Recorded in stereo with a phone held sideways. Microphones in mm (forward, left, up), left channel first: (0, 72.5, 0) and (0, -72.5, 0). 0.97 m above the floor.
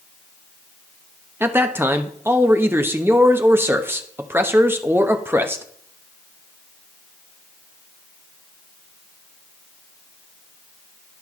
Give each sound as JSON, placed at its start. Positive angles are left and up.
{"t": 1.4, "sound": "a man speaking", "side_deg": -15, "distance_m": 0.9}